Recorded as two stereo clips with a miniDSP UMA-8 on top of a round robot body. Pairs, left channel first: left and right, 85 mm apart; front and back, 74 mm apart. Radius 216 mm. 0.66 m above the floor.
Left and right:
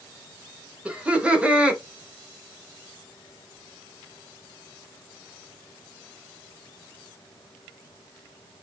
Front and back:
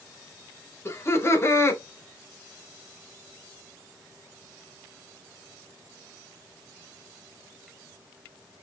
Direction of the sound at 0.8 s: 20° right.